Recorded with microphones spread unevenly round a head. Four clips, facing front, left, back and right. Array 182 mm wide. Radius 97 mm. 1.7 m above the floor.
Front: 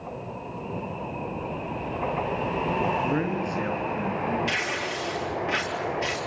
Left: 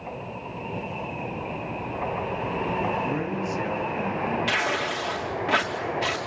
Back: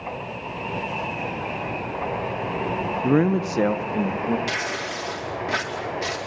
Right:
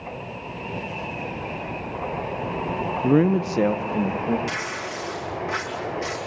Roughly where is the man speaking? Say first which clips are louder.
Right 9 dB, back 7 dB; behind right.